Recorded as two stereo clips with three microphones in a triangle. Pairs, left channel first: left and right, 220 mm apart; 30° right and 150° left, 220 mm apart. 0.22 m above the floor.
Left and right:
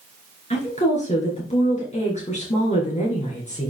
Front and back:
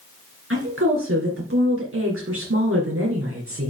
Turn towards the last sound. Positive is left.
turn(degrees=145)